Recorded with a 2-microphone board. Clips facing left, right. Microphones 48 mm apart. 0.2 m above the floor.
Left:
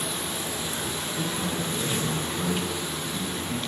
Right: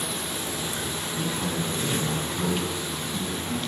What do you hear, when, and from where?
1.2 s a man speaking: 15° right (ahead or behind), 1.3 m; by 3.6 s 20° right (ahead or behind), 1.3 m